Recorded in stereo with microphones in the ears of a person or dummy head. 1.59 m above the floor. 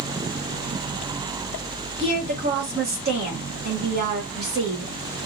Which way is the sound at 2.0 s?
55° right (ahead or behind).